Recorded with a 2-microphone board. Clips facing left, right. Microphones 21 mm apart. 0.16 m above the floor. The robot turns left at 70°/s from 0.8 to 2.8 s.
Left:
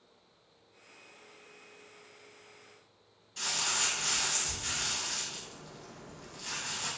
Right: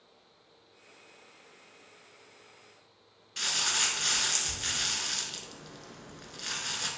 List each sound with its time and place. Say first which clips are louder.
3.4 s crumpling: right 3 dB; 40° right (ahead or behind), 0.6 m